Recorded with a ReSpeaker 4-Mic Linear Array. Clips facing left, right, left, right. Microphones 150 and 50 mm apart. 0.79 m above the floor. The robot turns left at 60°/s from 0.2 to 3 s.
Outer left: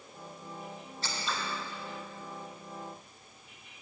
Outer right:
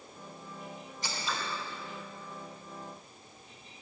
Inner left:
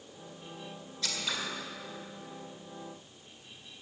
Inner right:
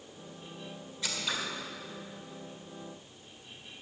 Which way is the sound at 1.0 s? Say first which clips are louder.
Even, inner right 1 dB; 15° right (ahead or behind).